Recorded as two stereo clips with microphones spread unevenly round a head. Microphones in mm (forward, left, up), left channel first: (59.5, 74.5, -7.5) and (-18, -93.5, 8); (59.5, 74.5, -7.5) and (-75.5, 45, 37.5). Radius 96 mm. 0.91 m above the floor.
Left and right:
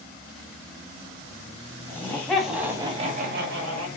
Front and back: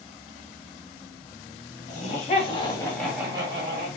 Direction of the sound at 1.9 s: 10° right.